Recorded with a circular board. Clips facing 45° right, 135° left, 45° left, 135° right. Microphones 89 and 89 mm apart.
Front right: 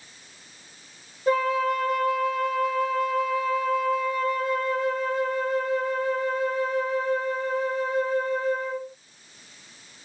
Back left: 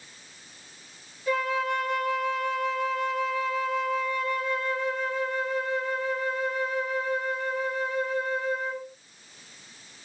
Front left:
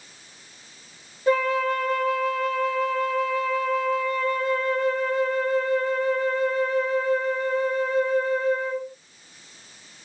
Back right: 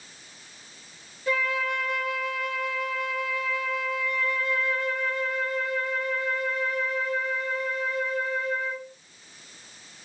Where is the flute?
5° right, 0.7 m.